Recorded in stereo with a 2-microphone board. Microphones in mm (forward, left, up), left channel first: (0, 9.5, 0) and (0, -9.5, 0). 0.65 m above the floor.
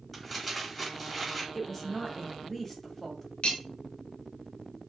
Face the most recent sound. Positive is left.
turn(degrees=80)